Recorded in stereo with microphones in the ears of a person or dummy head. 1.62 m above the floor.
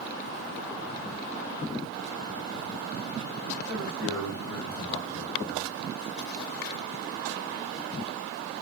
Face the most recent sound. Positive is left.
turn(degrees=60)  # may be behind; listen again after turning